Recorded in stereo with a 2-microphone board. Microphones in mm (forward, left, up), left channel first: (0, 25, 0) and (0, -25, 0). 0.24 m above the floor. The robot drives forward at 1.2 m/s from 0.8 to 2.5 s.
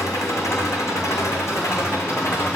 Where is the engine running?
80° left, 4.5 m; by 2.6 s 60° left (ahead or behind), 5.5 m.